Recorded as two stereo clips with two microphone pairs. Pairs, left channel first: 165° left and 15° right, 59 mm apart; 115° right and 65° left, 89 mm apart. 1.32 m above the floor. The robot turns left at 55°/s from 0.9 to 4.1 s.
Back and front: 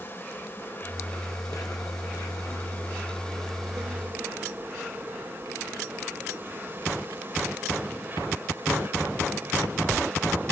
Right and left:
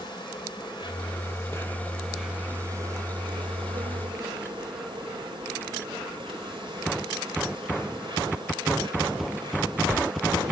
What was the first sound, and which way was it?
An insect, 140° right.